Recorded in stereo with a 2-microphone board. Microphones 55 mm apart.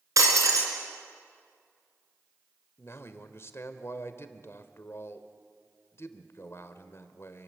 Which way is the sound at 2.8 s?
50° left (ahead or behind).